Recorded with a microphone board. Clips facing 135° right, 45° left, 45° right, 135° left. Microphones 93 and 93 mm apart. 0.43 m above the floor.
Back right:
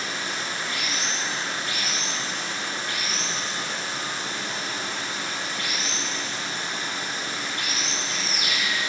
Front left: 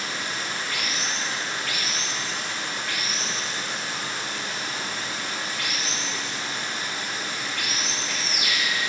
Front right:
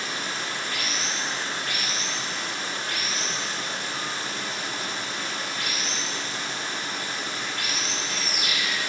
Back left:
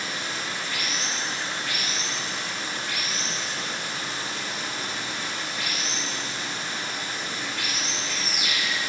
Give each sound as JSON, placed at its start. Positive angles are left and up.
{"t": 0.0, "sound": "running water", "azimuth_deg": -80, "distance_m": 4.5}